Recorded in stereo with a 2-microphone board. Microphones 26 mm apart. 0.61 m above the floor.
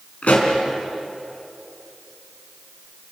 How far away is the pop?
About 4 m.